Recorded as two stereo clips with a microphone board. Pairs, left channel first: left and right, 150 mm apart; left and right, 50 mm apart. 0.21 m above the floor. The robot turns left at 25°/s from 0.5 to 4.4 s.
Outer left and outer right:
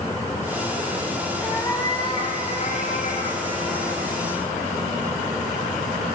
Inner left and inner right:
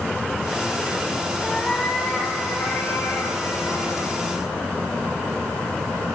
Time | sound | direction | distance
1.4 | a cat meowing | 165° left | 6 m